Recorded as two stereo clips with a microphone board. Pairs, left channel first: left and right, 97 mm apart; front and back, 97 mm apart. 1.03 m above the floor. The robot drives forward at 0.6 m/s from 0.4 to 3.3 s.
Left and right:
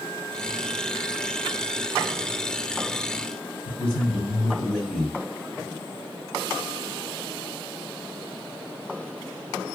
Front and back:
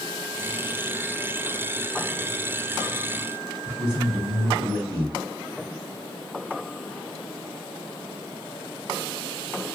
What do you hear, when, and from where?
3.6 s a man speaking: 170° left, 2 m